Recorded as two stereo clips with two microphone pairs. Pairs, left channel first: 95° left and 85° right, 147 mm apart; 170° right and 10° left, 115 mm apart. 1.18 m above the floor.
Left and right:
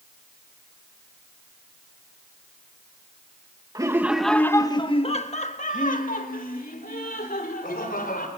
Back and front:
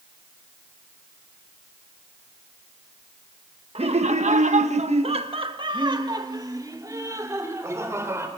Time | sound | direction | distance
3.8 | laughter | 20° right | 1.1 m